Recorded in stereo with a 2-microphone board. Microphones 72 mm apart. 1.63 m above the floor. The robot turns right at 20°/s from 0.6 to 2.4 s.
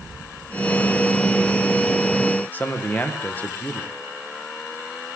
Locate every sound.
2.5 s a man speaking: 25° left (ahead or behind), 1.6 m